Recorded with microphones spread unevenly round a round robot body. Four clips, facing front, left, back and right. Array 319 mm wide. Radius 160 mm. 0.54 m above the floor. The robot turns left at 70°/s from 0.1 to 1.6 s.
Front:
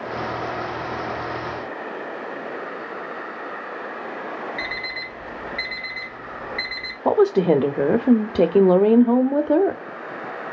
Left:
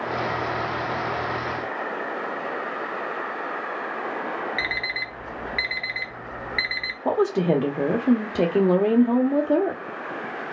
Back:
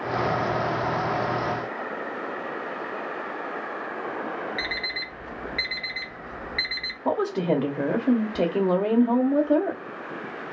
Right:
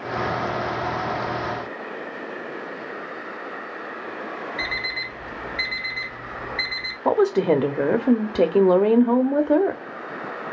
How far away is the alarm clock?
About 1.2 m.